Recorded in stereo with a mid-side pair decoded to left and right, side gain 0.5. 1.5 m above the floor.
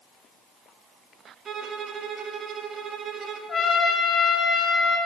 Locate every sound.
1.4 s a violin: 50° right, 1.2 m
3.5 s a trumpet: 40° left, 1.7 m